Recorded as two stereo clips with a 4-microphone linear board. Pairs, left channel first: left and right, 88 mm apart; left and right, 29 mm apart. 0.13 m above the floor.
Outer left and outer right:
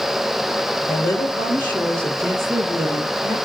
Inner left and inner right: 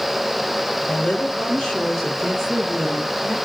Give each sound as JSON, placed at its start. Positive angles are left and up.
{"t": 0.9, "sound": "a woman speaking", "side_deg": 40, "distance_m": 2.5}